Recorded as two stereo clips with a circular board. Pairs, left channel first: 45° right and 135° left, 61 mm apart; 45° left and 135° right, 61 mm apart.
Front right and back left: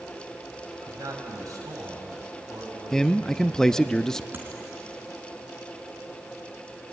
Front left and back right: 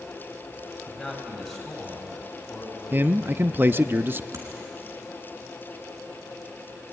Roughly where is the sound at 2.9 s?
Behind right.